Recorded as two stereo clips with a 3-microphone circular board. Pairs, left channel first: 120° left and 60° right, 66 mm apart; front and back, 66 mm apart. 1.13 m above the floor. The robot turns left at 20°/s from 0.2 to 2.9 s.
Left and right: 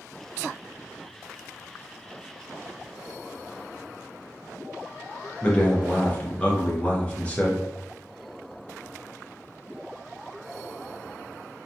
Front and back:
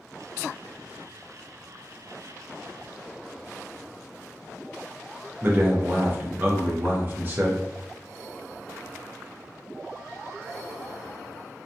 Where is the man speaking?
165° left, 0.5 m.